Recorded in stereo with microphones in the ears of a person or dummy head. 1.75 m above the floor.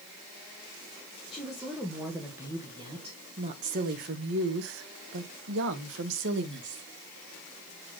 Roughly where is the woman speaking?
Centre.